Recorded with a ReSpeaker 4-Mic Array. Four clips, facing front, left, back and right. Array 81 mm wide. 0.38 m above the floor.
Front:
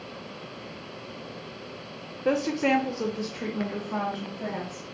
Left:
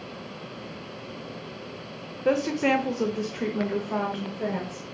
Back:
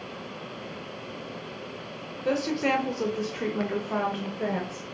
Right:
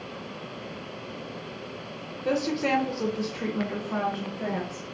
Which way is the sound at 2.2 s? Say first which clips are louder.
Left 3 dB, front 2 dB; 55° left.